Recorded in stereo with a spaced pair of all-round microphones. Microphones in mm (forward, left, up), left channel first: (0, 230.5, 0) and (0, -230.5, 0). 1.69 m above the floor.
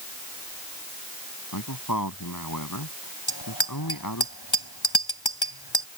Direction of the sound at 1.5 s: 45° left (ahead or behind).